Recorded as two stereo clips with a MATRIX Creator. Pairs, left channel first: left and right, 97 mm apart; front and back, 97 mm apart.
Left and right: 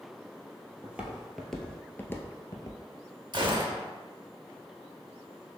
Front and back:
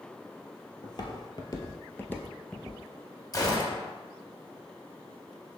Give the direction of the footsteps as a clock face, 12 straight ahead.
1 o'clock.